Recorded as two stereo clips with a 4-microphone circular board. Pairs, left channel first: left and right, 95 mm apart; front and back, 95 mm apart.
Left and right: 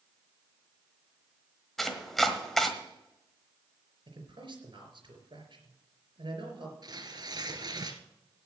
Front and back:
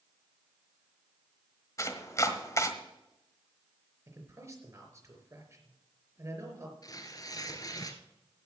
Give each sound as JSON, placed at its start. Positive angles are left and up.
{"t": 1.8, "sound": "chopping", "azimuth_deg": 5, "distance_m": 1.3}
{"t": 4.1, "sound": "a man speaking", "azimuth_deg": -125, "distance_m": 4.0}
{"t": 6.8, "sound": "tearing paper", "azimuth_deg": -45, "distance_m": 1.4}